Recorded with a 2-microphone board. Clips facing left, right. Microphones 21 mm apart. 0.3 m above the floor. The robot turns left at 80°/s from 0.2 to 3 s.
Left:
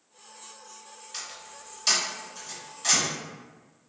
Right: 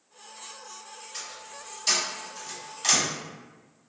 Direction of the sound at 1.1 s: 55° left (ahead or behind).